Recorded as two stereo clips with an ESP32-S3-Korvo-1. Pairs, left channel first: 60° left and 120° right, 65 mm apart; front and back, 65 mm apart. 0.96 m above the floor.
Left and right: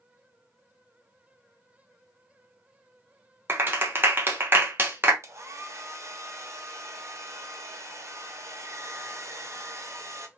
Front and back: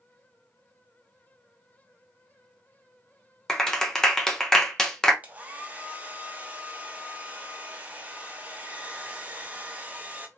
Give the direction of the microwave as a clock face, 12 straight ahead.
No microwave in this recording.